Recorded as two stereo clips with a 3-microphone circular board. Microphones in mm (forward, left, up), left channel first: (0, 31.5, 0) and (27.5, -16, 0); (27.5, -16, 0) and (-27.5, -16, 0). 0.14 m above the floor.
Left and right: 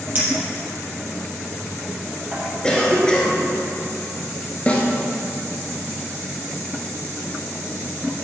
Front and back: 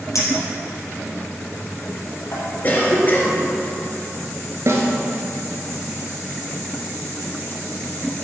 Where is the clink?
5° right, 3 m.